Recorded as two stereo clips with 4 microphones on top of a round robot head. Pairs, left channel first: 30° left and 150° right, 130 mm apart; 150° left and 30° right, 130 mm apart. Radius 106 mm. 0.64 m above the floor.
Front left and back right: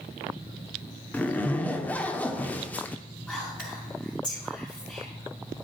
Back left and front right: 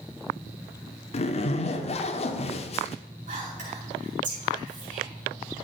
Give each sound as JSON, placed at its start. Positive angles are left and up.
{"t": 1.1, "sound": "a zipper", "azimuth_deg": 110, "distance_m": 1.0}
{"t": 3.3, "sound": "whispering", "azimuth_deg": -50, "distance_m": 6.5}